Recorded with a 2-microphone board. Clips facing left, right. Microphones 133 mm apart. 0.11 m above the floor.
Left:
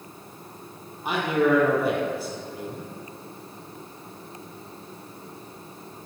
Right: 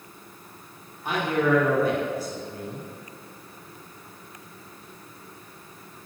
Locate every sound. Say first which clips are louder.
1.1 s a man speaking: left 1 dB; 10° left (ahead or behind), 2.5 m